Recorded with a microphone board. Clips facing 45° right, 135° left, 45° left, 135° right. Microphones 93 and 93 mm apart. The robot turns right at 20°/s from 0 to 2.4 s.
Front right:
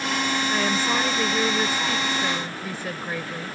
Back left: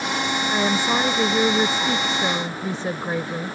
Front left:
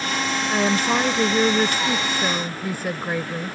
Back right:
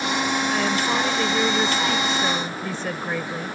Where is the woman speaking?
75° left; by 3.6 s 115° left.